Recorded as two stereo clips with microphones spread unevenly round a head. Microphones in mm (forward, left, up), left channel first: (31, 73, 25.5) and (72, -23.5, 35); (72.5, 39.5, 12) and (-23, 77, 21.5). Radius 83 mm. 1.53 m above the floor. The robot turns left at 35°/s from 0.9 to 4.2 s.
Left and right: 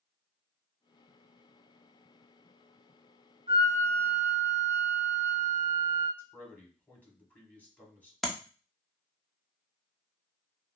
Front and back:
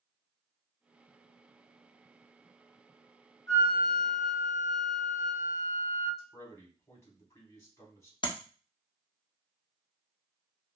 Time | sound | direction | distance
3.5 | a flute | 85° right | 1.8 m
6.2 | a man speaking | 40° left | 2.0 m
8.2 | tapping | 20° left | 0.8 m